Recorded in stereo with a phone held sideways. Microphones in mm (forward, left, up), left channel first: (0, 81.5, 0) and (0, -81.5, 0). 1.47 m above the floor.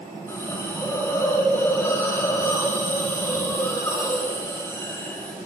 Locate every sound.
0.3 s a hiss: 15° left (ahead or behind), 2 m